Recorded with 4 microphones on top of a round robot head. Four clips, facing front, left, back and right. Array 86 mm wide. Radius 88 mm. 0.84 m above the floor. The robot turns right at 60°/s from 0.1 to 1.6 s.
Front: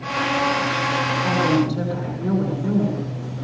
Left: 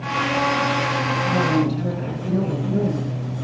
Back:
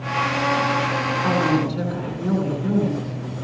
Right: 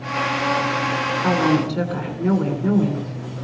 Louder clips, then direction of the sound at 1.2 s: Right 2 dB, even; 115° right.